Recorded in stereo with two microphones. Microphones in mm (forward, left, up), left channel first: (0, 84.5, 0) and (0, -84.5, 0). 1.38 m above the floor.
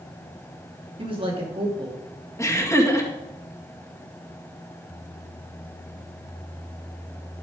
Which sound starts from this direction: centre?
Laughter, at 2.4 s.